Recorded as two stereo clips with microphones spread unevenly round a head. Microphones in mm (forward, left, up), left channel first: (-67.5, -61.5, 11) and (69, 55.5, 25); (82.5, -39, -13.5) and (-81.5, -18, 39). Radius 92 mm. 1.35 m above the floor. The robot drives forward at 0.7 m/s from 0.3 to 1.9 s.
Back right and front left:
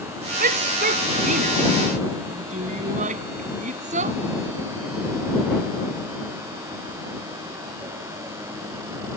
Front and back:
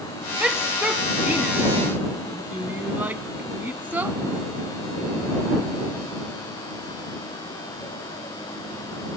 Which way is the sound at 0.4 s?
85° left.